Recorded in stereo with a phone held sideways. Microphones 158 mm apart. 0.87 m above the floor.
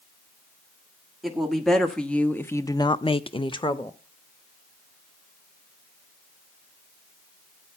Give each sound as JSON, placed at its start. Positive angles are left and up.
{"t": 1.2, "sound": "a woman speaking", "side_deg": 0, "distance_m": 1.7}